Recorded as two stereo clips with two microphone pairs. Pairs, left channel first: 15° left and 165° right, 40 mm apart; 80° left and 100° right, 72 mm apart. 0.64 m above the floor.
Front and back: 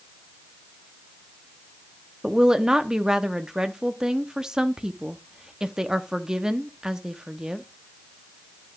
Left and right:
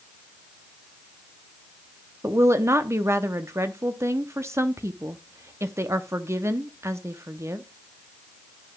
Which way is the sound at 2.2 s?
105° right.